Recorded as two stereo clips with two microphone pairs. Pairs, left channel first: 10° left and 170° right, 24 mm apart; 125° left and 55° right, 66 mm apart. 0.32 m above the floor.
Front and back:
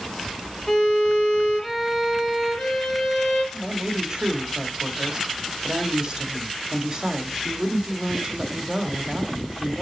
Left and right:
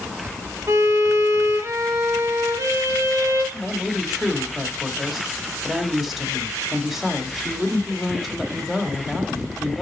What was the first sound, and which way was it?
A violin, 45° right.